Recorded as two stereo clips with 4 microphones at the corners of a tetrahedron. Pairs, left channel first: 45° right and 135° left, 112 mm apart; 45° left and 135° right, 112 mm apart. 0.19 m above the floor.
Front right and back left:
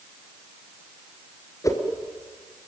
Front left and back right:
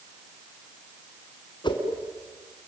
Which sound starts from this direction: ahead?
A whoosh, at 1.6 s.